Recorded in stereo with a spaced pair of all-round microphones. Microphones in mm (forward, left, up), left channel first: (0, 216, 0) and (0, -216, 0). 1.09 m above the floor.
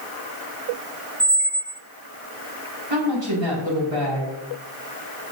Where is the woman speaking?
90° right, 5 m.